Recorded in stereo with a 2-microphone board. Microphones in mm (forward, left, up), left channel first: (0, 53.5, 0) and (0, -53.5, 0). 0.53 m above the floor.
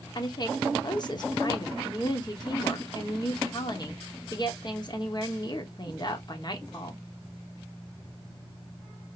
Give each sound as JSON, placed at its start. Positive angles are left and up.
{"t": 0.1, "sound": "a woman speaking", "side_deg": 45, "distance_m": 1.0}